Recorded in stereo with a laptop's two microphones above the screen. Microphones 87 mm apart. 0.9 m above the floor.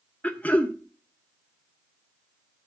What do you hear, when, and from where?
0.2 s throat clearing: 15° left (ahead or behind), 0.8 m